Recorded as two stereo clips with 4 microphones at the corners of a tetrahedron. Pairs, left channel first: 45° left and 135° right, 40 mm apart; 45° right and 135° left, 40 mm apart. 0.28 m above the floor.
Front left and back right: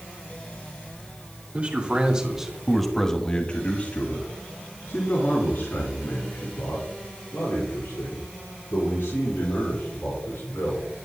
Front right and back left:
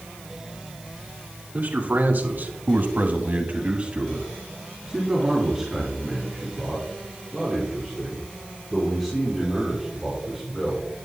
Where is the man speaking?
170° left, 2.5 m; by 10.8 s 35° left, 10 m.